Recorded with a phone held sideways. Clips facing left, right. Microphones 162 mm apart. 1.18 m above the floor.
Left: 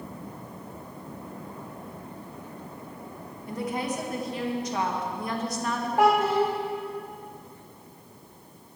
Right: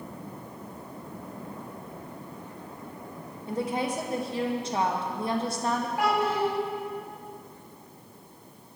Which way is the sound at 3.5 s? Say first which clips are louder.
Right 1 dB; 30° right (ahead or behind).